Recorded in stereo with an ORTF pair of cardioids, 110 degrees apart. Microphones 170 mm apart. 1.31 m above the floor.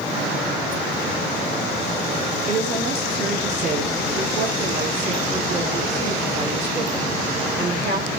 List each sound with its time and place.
2.5 s a woman speaking: 70° right, 2.5 m